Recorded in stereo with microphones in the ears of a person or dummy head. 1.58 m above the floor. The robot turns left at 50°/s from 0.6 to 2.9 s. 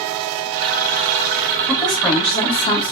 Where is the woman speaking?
Straight behind, 1.0 m; by 2.9 s 120° left, 1.0 m.